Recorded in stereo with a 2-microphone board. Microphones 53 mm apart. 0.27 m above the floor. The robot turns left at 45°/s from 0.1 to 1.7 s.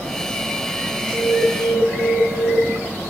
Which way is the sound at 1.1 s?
35° left (ahead or behind).